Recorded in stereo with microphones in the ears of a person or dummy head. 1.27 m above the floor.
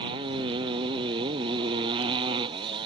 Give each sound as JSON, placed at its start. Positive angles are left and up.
{"t": 0.0, "sound": "a motorcycle", "side_deg": -30}